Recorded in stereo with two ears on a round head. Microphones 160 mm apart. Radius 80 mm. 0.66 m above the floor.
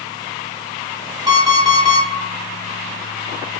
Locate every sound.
1.3 s an alarm clock: 20° right (ahead or behind), 0.7 m